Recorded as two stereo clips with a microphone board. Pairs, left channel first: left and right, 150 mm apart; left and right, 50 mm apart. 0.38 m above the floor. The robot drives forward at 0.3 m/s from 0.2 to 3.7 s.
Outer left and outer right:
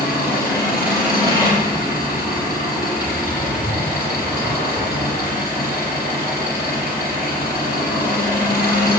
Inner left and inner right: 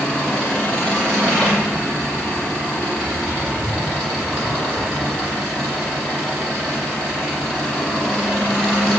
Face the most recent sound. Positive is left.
turn(degrees=20)  # may be behind; listen again after turning